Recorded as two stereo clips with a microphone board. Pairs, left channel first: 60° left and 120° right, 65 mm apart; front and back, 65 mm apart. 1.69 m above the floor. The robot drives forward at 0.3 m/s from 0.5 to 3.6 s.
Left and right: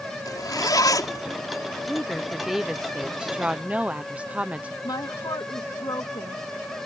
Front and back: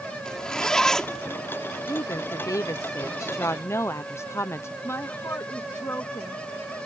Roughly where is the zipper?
Left.